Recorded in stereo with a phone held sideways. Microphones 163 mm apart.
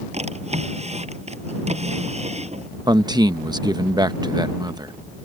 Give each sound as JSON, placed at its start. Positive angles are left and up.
{"t": 0.1, "sound": "a drawer", "side_deg": -45}
{"t": 2.9, "sound": "a man speaking", "side_deg": -25}